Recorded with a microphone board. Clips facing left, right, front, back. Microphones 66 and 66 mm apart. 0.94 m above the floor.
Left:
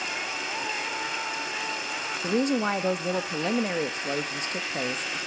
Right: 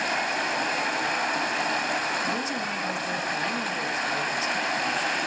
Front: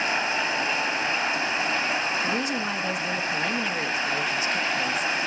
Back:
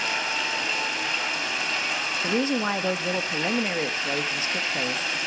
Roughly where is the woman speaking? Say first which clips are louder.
Left 4 dB, back 2 dB; behind left.